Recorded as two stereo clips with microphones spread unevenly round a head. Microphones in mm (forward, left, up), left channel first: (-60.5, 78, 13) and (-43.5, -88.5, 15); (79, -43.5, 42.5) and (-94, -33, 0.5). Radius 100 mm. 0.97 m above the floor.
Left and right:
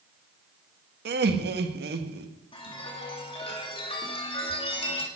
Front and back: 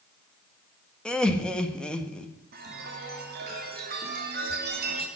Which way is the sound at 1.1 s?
95° right.